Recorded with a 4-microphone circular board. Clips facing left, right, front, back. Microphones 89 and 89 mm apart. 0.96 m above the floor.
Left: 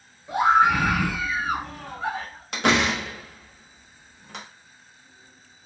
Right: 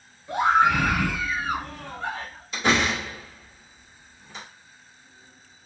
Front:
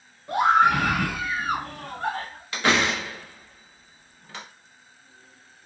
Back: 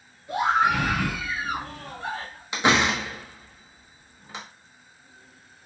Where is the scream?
15° left, 1.1 m.